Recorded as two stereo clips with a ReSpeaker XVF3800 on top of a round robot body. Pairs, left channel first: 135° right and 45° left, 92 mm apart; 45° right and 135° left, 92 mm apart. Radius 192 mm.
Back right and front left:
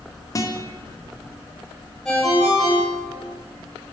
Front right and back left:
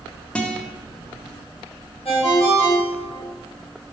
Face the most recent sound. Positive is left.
turn(degrees=-45)